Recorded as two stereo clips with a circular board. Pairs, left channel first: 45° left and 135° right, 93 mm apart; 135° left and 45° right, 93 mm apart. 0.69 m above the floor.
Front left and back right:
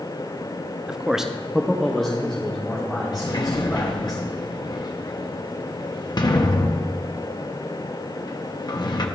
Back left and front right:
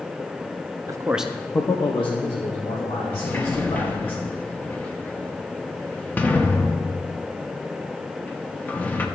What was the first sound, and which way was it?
A man speaking, 55° right.